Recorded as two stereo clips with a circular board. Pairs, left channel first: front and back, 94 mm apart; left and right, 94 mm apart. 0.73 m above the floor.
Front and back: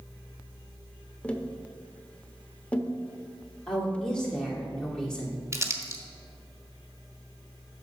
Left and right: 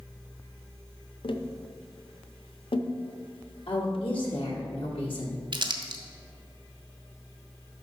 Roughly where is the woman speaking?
Left.